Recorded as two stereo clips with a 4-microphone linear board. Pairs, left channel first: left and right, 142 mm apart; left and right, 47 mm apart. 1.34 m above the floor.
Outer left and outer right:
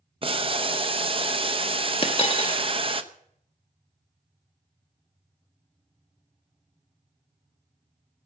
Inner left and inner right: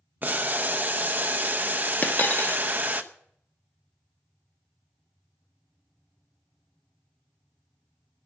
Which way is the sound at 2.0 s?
40° left (ahead or behind).